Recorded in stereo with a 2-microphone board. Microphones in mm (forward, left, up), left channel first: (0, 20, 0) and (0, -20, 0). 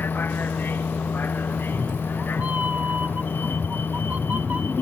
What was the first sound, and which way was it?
A vehicle, 55° left (ahead or behind).